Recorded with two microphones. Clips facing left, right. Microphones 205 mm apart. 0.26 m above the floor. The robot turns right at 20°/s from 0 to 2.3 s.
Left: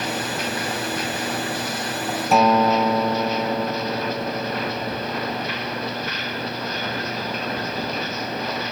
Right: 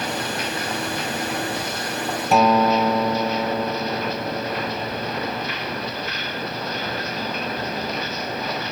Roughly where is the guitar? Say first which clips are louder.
Even; centre.